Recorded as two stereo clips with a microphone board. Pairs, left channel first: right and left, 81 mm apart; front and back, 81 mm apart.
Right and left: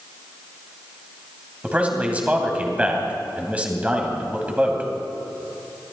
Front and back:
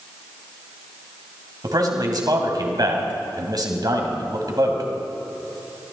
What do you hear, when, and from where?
1.6 s a man speaking: 160° left, 2.5 m